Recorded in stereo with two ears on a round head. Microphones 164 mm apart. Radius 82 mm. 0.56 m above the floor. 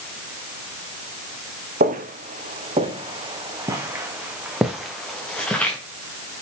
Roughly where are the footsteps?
Right.